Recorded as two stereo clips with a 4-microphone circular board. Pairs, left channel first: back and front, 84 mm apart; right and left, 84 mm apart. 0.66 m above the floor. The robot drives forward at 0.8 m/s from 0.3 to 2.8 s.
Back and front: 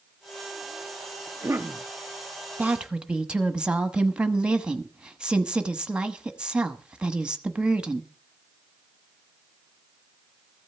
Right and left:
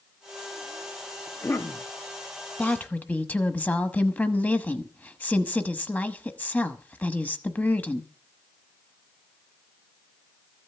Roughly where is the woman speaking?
Ahead right.